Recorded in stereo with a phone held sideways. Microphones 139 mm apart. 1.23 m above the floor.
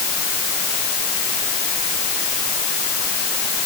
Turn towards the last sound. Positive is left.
No sound to turn to.